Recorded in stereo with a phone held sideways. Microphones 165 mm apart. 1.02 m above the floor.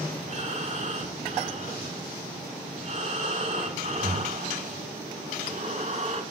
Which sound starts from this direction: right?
Breathing, at 0.3 s.